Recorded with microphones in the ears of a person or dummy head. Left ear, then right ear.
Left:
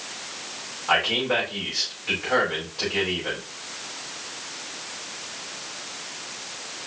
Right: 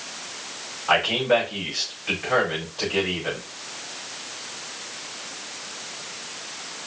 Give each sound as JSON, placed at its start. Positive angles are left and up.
{"t": 0.9, "sound": "a man speaking", "side_deg": -30, "distance_m": 4.5}